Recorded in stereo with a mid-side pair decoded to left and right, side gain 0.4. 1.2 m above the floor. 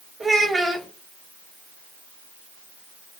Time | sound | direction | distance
0.2 | a child speaking | 25° right | 3 m